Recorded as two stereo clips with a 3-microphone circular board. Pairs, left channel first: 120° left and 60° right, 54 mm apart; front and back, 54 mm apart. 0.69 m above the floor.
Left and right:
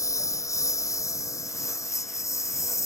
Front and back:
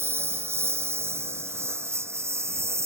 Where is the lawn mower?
135° left; by 2.9 s 140° left.